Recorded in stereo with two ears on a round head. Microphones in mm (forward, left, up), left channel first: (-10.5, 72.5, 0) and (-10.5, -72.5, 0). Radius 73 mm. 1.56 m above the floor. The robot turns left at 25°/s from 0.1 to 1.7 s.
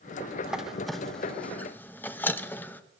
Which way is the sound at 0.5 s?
5° right (ahead or behind).